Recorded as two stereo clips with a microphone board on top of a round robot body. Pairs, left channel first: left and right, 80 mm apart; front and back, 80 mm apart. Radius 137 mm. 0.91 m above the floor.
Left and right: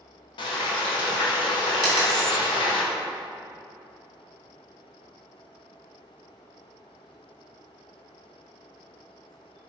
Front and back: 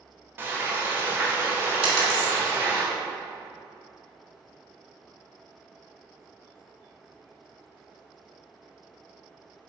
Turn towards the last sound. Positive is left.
turn(degrees=-175)